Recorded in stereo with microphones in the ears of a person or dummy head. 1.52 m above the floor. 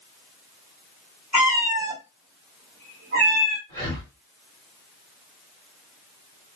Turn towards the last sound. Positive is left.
turn(degrees=-45)  # may be behind; listen again after turning